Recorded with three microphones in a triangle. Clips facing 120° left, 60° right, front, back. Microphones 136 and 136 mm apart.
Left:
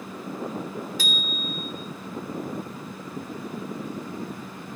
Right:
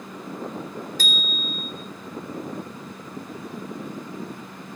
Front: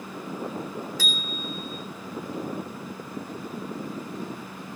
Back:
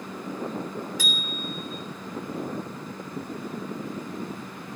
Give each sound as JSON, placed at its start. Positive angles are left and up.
{"t": 1.0, "sound": "a bicycle bell", "azimuth_deg": -105, "distance_m": 3.0}